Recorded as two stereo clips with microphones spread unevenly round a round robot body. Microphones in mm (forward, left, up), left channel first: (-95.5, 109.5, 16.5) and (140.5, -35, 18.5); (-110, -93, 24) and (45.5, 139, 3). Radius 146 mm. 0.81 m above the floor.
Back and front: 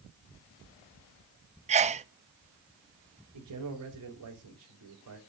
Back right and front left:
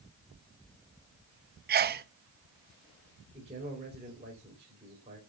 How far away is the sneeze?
About 0.9 m.